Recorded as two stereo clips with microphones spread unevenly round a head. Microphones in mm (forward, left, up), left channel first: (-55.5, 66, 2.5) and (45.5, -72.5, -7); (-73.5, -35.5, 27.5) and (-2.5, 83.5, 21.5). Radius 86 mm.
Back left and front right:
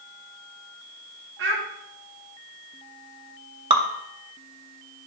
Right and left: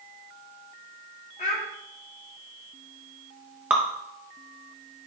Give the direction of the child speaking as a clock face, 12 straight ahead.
2 o'clock.